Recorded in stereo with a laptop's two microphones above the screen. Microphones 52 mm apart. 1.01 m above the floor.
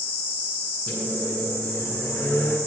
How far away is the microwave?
About 8.5 m.